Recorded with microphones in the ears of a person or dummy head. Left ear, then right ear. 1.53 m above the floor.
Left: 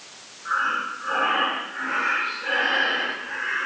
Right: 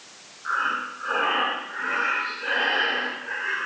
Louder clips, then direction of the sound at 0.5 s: Left 1 dB; 65° right (ahead or behind).